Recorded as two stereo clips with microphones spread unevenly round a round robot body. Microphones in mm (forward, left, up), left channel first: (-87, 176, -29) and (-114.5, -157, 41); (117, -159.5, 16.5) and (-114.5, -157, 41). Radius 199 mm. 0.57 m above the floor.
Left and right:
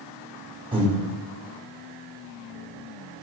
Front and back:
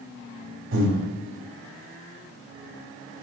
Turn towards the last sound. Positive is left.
turn(degrees=-175)